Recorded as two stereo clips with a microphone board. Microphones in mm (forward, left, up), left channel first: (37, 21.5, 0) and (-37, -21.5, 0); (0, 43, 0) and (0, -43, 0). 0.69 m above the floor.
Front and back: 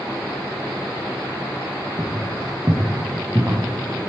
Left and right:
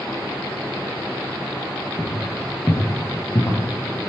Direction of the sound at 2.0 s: 155° left.